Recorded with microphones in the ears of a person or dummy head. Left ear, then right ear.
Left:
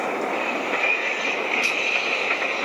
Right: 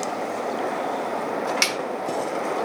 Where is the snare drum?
70° right (ahead or behind), 1.5 m.